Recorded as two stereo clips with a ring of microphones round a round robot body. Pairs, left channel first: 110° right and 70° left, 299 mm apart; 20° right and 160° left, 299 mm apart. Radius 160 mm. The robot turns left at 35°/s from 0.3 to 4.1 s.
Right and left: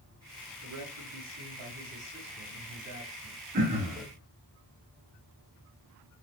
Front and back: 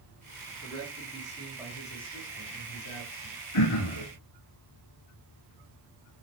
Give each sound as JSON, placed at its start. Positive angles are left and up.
{"t": 0.6, "sound": "a man speaking", "azimuth_deg": 100, "distance_m": 7.5}
{"t": 3.5, "sound": "throat clearing", "azimuth_deg": 5, "distance_m": 4.0}